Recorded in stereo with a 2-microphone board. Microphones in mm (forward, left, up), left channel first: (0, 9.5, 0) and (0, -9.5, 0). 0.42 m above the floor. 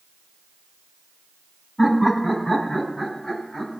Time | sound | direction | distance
1.8 | laughter | 20° left (ahead or behind) | 2.5 m